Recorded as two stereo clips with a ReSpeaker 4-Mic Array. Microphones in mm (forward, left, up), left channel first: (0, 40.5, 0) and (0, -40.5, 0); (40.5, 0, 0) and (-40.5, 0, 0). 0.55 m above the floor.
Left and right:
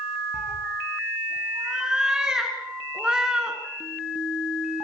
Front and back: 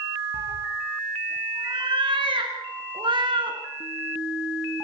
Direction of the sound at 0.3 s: 170° right.